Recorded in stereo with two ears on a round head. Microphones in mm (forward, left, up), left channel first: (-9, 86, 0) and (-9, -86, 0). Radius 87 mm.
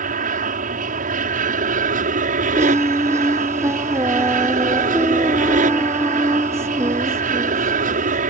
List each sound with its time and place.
0.0 s an aircraft: 45° right (ahead or behind)
2.5 s singing: 15° right (ahead or behind)